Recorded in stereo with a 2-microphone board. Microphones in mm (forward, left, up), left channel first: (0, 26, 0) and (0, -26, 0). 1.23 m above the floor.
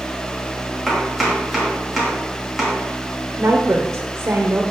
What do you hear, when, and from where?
0.9 s chopping: centre (ahead or behind), 2.5 m
3.4 s a woman speaking: 50° right (ahead or behind), 0.8 m